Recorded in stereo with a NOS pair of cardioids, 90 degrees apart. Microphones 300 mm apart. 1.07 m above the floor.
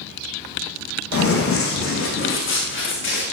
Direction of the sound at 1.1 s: 45° left.